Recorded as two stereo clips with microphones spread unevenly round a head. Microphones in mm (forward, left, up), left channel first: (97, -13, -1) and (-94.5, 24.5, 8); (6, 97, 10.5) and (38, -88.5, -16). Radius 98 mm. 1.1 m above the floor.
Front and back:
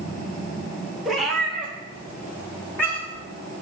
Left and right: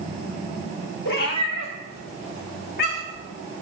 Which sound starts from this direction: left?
A cat meowing, at 1.1 s.